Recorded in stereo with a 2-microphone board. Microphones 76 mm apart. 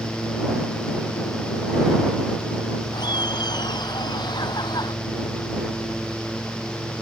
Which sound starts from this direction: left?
Laughter, at 2.9 s.